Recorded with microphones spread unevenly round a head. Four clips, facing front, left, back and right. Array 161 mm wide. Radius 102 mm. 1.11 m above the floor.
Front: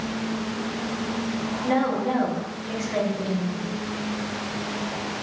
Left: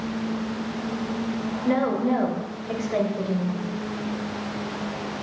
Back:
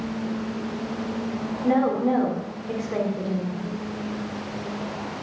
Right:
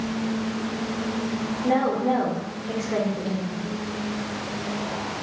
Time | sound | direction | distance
1.6 | a woman speaking | 125° right | 4 m